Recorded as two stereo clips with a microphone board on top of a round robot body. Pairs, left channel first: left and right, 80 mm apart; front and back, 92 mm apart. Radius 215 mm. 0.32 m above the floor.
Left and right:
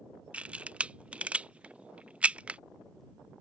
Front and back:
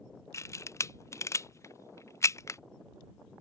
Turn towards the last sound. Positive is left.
turn(degrees=-25)